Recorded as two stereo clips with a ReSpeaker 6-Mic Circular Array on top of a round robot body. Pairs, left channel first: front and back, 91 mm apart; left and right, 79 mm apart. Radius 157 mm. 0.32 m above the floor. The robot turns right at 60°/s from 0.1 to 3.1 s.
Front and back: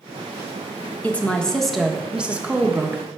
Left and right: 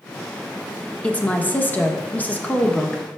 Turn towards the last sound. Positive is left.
turn(degrees=170)